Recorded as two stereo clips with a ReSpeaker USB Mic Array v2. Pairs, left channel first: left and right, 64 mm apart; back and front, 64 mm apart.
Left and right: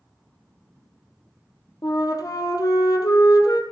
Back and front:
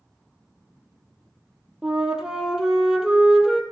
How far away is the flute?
About 2.0 m.